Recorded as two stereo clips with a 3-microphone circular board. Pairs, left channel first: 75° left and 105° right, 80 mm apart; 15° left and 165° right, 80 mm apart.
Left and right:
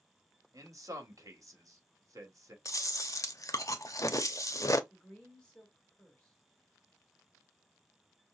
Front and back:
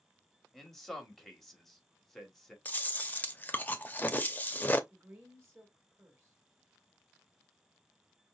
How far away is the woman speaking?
About 1.6 m.